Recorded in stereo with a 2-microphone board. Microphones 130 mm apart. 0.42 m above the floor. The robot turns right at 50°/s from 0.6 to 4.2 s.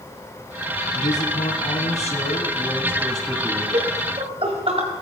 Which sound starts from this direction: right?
Laughter, at 3.7 s.